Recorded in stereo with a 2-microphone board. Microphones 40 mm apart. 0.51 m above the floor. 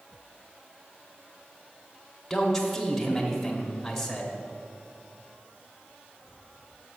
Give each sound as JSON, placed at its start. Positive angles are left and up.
{"t": 2.3, "sound": "a man speaking", "side_deg": 5, "distance_m": 1.1}